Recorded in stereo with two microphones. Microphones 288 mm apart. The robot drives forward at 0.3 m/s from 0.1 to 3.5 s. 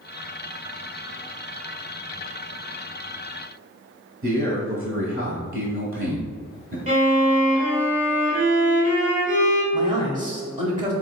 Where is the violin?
25° right (ahead or behind), 1.1 m.